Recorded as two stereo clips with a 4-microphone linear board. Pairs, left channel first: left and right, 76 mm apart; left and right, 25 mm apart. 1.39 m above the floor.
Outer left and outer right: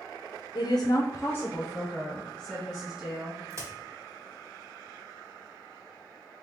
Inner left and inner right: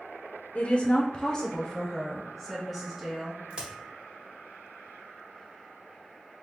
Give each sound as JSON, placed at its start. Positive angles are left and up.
{"t": 0.6, "sound": "a woman speaking", "side_deg": 80, "distance_m": 0.6}
{"t": 3.5, "sound": "a crack", "side_deg": -40, "distance_m": 1.3}